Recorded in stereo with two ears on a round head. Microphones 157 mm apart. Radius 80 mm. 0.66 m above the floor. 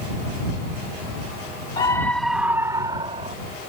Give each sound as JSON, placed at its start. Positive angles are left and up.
{"t": 1.8, "sound": "a scream", "side_deg": 25}